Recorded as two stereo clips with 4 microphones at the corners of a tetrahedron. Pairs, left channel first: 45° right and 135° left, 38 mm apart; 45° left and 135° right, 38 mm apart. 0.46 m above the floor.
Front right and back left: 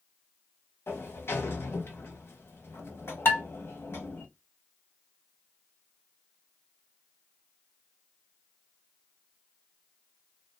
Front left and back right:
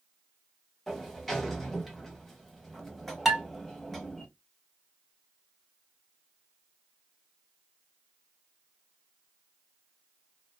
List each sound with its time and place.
0.9 s a sliding door: 40° right, 0.7 m
3.2 s dishes clattering: 45° right, 1.8 m